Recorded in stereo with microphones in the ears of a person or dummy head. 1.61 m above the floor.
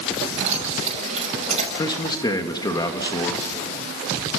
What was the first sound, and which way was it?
Keys jangling, 45° right (ahead or behind).